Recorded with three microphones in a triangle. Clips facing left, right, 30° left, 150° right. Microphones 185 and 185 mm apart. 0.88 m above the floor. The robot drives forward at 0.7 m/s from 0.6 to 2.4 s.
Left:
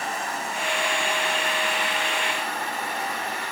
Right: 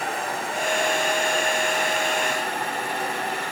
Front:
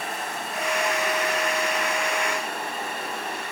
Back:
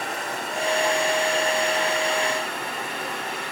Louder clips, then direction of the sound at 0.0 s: Right 2 dB, back 2 dB; 125° right.